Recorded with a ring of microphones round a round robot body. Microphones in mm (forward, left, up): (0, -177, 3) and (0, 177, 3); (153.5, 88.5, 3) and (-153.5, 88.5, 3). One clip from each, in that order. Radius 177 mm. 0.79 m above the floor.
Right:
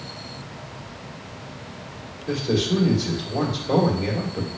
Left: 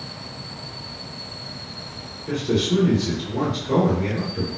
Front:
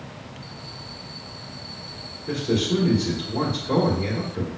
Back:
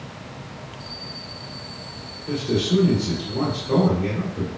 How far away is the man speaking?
About 1.5 m.